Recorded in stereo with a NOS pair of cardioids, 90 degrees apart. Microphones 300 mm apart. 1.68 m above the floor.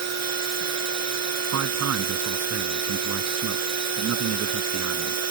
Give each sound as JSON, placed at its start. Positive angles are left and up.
{"t": 0.0, "sound": "a machine running", "azimuth_deg": -60}
{"t": 1.5, "sound": "a man speaking", "azimuth_deg": -60}